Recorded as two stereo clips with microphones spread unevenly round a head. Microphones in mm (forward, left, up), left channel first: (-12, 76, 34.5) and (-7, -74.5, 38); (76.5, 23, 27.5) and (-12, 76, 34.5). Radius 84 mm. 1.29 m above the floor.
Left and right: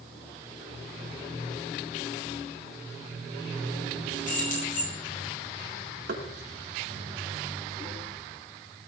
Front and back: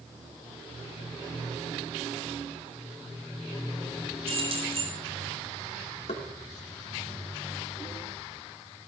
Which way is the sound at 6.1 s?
65° right.